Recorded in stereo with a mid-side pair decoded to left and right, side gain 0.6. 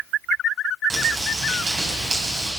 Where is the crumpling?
30° right, 9 m.